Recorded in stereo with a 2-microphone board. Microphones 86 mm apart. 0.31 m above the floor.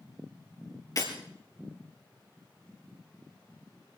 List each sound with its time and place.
1.0 s breaking glass: 45° left (ahead or behind), 4 m